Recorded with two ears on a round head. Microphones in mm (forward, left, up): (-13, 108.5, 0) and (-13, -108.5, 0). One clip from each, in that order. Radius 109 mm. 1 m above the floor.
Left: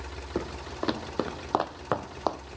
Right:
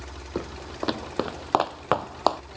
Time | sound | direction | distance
0.3 | footsteps | 5° right (ahead or behind) | ?